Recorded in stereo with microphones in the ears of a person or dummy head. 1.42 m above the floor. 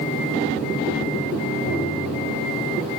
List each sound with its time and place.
1.7 s tapping: 80° left, 5.5 m